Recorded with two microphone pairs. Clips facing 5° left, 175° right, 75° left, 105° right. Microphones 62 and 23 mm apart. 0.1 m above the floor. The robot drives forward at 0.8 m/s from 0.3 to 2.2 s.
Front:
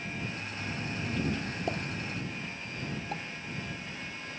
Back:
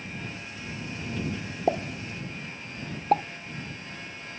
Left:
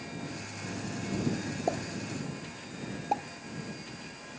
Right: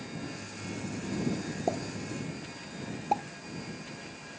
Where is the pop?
160° left; by 3.2 s 170° left.